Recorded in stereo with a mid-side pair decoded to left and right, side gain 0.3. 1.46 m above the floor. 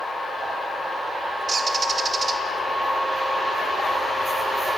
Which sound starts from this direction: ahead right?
A bird, at 1.5 s.